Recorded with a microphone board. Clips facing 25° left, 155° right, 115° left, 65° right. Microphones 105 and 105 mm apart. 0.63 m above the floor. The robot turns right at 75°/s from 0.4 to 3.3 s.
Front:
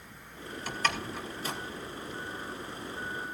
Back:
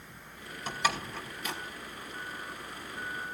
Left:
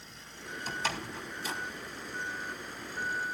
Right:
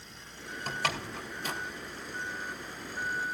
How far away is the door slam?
About 2.5 m.